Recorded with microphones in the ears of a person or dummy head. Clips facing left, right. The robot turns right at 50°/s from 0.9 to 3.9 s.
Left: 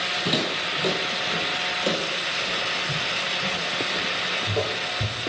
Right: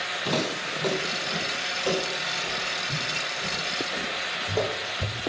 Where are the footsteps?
15° left (ahead or behind), 3.5 m; by 5.2 s 65° left (ahead or behind), 3.5 m.